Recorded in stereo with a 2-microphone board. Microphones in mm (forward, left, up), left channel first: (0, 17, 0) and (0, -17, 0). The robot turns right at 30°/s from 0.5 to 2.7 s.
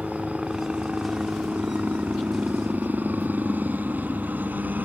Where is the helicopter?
160° right; by 4.9 s 95° right.